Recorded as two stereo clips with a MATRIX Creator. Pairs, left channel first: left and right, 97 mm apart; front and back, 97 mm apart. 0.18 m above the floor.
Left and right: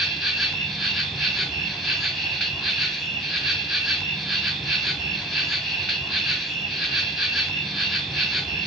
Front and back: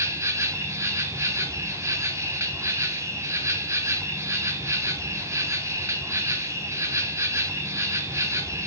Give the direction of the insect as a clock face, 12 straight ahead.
6 o'clock.